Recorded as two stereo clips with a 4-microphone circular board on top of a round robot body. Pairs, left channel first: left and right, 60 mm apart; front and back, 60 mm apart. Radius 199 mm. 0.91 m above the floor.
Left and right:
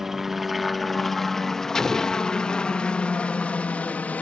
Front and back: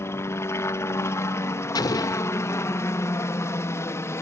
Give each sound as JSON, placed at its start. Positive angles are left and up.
{"t": 0.0, "sound": "a helicopter", "azimuth_deg": -5}
{"t": 1.8, "sound": "an explosion", "azimuth_deg": 5}